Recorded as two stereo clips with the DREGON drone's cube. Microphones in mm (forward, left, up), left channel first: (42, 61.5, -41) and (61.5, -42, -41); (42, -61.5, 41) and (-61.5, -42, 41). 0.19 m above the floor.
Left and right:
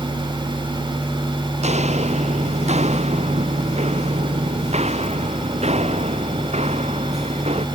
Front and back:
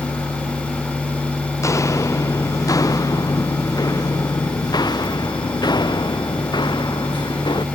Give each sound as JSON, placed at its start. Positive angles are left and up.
{"t": 1.6, "sound": "footsteps", "azimuth_deg": -75}